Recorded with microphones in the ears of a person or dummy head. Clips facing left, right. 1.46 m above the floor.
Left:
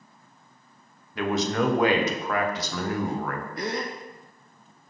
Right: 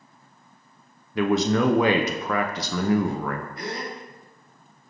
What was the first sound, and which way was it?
A man speaking, 65° right (ahead or behind).